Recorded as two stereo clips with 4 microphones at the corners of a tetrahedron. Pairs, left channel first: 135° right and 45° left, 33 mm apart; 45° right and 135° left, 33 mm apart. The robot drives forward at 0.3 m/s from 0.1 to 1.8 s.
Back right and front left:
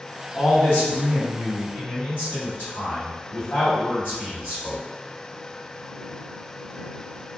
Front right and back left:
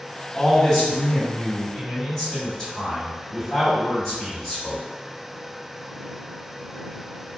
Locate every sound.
0.3 s a man speaking: 115° right, 2.0 m; by 4.8 s 125° right, 2 m